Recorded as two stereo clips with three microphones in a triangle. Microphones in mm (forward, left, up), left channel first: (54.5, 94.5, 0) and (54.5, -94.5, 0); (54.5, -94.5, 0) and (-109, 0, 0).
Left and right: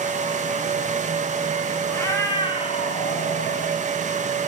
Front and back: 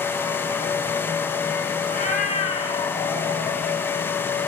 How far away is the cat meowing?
About 1.3 m.